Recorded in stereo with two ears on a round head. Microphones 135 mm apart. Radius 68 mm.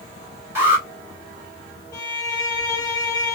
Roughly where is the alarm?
Centre.